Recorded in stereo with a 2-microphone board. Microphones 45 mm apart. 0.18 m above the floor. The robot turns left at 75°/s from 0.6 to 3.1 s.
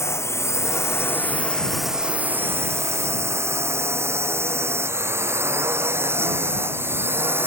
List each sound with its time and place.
0.0 s a drone: 85° left; by 7.5 s 55° right (ahead or behind)